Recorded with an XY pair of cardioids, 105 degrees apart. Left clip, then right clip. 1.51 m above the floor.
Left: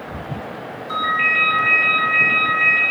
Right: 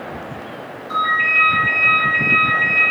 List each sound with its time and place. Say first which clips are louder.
0.9 s a ringtone: right 2 dB; 60° left, 1.7 m